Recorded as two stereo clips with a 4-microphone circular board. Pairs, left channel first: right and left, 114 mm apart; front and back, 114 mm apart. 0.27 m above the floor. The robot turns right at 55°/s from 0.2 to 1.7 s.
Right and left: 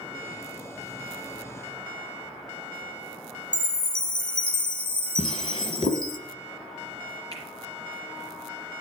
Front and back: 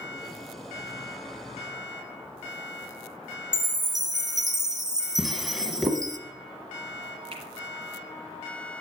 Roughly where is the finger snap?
Behind right.